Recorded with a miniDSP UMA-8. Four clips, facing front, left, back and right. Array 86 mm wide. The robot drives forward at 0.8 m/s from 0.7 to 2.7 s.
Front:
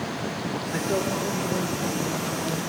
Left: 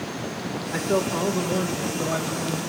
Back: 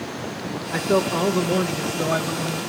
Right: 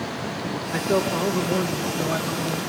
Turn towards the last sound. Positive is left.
turn(degrees=180)